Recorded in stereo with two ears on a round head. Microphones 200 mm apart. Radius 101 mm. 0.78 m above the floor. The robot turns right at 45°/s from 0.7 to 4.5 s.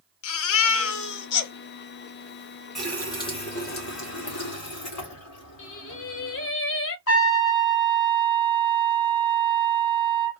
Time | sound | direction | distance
0.2 | a baby crying | 90° left | 0.9 m
2.8 | a running tap | straight ahead | 1.7 m
5.6 | singing | 60° left (ahead or behind) | 0.8 m
7.1 | a trumpet | 65° left (ahead or behind) | 1.7 m